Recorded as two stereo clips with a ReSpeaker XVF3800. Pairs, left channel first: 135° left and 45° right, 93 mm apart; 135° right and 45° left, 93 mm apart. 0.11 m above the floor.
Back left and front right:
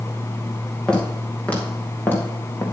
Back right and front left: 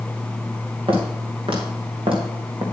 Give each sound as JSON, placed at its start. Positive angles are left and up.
{"t": 0.9, "sound": "footsteps", "azimuth_deg": 55, "distance_m": 4.0}